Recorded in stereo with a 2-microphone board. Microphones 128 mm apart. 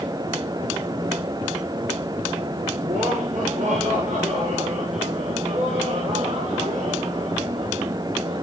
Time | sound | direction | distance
2.8 | laughter | 70° right (ahead or behind) | 8 m